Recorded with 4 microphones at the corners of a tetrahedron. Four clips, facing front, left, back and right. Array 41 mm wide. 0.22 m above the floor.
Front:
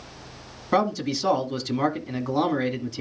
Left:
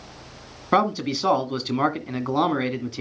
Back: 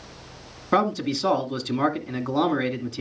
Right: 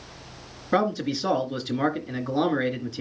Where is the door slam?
I don't hear a door slam.